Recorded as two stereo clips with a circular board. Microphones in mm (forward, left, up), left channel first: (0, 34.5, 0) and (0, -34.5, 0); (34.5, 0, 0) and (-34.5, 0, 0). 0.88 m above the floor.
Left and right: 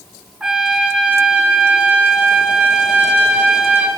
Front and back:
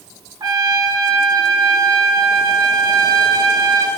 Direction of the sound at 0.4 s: 160° right.